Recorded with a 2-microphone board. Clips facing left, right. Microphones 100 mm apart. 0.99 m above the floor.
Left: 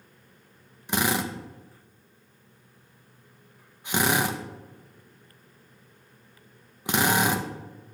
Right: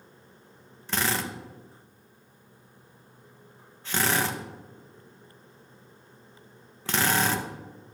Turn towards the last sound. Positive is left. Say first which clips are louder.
# left 3 dB
turn(degrees=15)  # may be behind; listen again after turning